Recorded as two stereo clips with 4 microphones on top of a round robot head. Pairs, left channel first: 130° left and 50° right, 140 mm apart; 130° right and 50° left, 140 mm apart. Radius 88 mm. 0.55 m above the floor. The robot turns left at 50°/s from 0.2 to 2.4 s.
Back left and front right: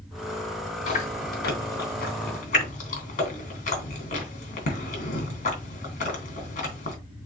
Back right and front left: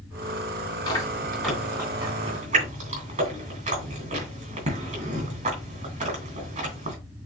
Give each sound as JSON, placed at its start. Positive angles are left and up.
{"t": 0.9, "sound": "chewing", "azimuth_deg": 170, "distance_m": 3.0}